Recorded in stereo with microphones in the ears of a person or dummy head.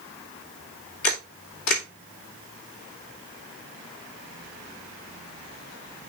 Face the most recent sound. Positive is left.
turn(degrees=70)  # may be behind; listen again after turning